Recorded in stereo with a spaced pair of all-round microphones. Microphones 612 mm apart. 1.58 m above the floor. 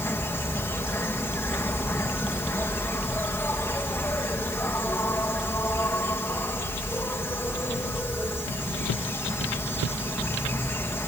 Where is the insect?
5° left (ahead or behind).